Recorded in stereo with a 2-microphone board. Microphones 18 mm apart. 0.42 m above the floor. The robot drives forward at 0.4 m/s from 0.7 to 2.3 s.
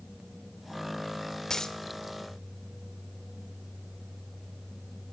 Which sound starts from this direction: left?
A dropped coin, at 1.5 s.